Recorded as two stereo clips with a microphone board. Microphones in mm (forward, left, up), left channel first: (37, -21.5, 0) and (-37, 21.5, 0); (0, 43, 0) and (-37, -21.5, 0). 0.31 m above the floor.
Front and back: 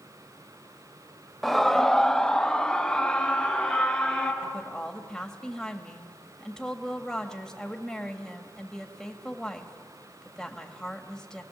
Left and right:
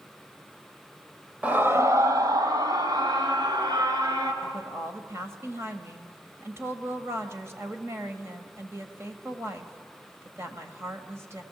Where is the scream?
120° right, 0.9 m; by 4.3 s 110° right, 4 m.